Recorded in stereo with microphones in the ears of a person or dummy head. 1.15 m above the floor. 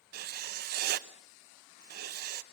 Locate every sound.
0.1 s writing: 55° right (ahead or behind), 0.8 m